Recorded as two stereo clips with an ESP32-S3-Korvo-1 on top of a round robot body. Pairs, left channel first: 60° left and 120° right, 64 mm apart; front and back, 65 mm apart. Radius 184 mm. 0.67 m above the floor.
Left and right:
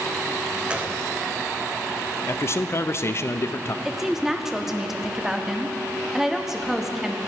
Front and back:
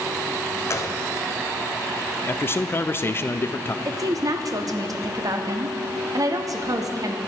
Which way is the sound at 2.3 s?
35° left.